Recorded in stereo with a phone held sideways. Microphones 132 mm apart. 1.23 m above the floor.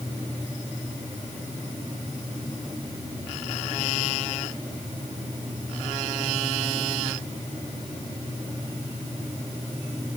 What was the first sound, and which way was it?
Only background noise.